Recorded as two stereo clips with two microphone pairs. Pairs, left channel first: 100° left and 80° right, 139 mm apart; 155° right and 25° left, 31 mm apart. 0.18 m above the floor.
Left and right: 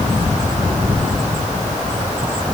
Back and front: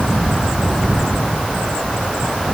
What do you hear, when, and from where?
Only background noise.